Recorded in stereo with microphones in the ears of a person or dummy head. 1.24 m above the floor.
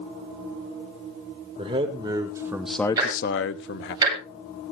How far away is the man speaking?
About 2 m.